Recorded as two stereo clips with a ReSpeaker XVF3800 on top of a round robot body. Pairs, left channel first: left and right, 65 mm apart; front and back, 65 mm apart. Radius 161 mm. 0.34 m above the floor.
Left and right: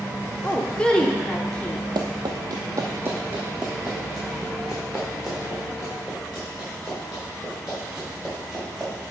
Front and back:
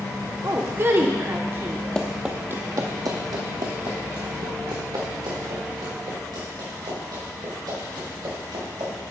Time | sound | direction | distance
0.4 | a woman speaking | 155° left | 1.2 m
1.9 | running footsteps | 75° right | 0.8 m